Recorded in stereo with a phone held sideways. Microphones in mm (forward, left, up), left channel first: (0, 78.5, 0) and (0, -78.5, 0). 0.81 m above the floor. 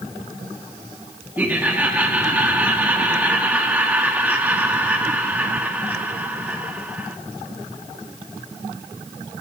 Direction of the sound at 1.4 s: 10° right (ahead or behind).